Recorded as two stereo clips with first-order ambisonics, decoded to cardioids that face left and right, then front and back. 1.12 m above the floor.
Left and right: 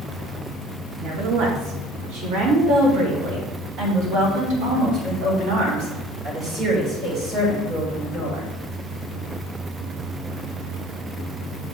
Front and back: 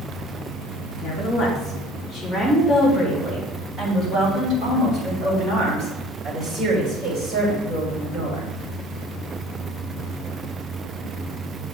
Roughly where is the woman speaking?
Right.